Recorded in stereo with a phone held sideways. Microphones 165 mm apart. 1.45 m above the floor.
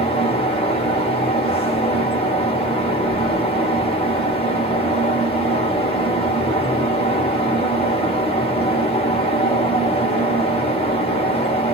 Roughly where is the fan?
Left.